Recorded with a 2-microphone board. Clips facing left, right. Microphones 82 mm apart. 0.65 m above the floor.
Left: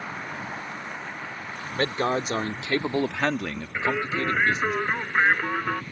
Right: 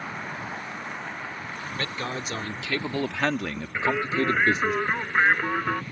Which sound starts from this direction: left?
A man speaking, at 1.8 s.